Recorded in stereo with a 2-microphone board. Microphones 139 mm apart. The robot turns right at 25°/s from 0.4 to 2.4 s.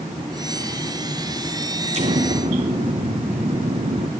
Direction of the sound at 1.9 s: 50° right (ahead or behind).